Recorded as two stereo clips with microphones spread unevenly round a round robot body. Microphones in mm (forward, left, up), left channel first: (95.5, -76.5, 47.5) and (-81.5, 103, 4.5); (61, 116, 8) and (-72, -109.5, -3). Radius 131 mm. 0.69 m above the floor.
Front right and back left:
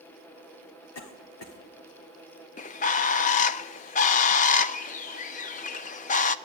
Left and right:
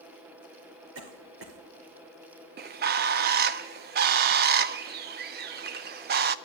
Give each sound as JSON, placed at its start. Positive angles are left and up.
{"t": 0.9, "sound": "a cough", "azimuth_deg": -80, "distance_m": 2.5}
{"t": 2.6, "sound": "a bird", "azimuth_deg": -105, "distance_m": 0.6}